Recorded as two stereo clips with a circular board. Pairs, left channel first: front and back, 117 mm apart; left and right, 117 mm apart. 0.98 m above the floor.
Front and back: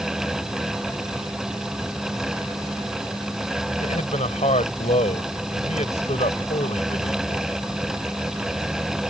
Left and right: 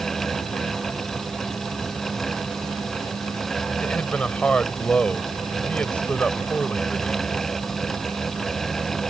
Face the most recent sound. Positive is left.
turn(degrees=10)